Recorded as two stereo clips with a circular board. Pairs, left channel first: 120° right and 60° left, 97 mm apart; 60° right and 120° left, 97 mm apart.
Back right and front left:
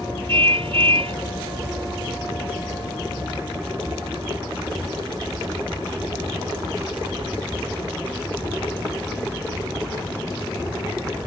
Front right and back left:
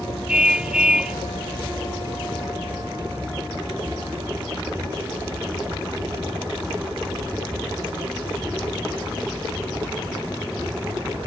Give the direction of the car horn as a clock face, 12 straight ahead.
11 o'clock.